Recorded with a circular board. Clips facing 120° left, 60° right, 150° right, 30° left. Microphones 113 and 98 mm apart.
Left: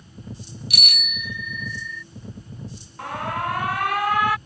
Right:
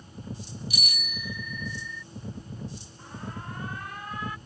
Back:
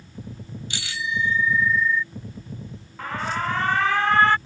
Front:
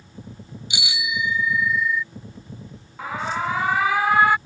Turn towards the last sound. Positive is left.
turn(degrees=110)